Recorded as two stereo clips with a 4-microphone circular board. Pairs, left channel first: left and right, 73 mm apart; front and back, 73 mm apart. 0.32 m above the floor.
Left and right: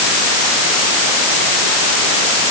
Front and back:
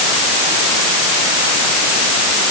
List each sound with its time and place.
Only background noise.